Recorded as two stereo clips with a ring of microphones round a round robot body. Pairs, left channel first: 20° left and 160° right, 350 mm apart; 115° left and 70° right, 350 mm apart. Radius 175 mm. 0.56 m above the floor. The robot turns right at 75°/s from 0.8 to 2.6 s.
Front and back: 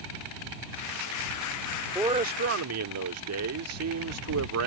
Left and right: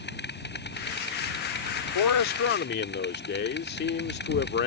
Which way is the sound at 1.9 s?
120° left.